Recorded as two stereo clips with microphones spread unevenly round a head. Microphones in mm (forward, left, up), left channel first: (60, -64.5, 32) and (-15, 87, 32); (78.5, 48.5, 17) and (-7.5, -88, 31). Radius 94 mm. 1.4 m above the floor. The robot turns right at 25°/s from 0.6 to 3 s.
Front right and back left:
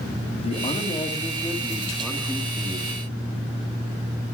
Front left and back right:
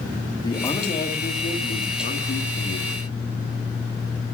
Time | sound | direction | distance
0.4 | a man speaking | 10° right | 3 m